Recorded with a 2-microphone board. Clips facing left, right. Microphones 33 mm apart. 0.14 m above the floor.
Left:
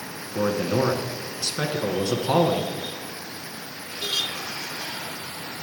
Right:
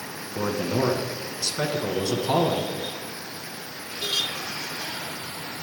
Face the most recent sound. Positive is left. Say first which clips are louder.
# left 2 dB
turn(degrees=15)  # may be behind; listen again after turning